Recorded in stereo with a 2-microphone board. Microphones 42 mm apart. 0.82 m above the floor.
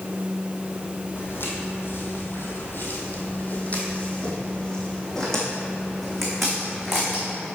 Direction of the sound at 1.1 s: 55° left (ahead or behind).